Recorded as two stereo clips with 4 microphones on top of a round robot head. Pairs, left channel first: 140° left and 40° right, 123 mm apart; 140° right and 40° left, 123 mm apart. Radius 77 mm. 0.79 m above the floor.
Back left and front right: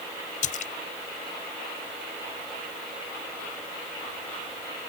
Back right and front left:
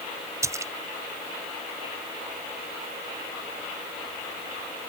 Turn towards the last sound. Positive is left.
turn(degrees=110)